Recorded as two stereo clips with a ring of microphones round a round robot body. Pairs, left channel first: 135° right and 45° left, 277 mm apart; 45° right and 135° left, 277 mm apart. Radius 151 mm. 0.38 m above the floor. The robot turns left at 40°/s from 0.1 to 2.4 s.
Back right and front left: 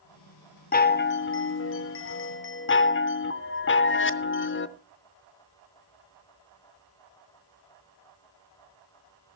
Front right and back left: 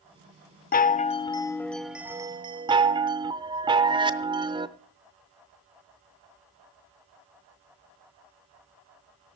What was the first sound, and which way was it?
A chime, 90° right.